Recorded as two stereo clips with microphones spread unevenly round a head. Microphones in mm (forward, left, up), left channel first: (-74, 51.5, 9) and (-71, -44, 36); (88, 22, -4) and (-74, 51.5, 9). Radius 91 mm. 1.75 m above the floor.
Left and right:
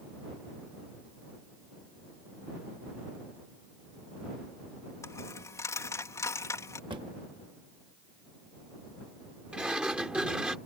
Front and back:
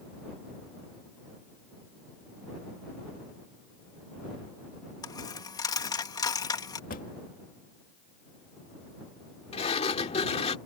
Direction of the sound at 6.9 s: 55° right.